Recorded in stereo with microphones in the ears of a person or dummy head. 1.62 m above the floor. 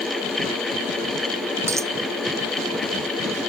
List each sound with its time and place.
1.7 s a dropped coin: 15° right (ahead or behind)